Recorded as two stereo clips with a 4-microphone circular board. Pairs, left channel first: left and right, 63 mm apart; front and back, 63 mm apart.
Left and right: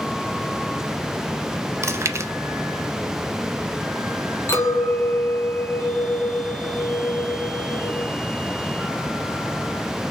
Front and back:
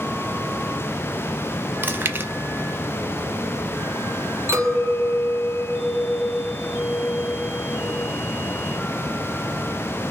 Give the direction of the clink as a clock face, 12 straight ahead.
7 o'clock.